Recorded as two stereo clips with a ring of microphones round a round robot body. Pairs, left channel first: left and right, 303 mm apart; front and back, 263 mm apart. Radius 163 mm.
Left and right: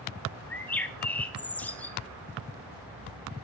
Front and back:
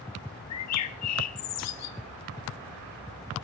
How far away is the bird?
About 1.3 m.